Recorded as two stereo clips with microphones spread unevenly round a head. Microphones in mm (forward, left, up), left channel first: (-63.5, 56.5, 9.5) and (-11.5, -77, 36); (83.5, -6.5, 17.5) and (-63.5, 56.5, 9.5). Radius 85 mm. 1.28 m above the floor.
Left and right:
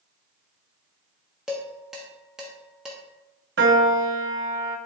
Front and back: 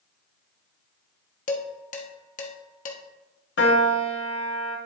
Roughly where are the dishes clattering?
Ahead.